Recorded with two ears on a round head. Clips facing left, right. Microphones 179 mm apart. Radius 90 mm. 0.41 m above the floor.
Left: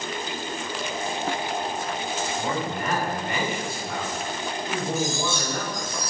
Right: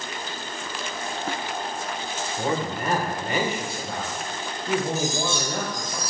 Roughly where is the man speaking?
Right.